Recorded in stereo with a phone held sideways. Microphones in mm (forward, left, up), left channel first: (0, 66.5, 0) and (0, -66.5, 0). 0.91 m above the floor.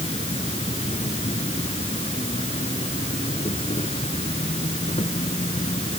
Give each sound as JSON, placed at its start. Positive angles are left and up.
{"t": 0.0, "sound": "an insect", "side_deg": 50}